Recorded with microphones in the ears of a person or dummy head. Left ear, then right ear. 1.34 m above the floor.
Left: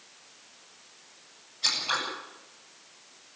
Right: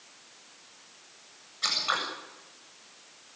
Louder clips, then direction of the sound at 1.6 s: Left 1 dB; 50° right (ahead or behind).